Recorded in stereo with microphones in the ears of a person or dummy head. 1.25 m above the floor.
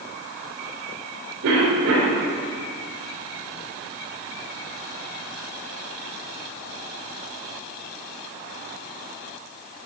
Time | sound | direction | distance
1.4 | a cough | 65° right (ahead or behind) | 4 m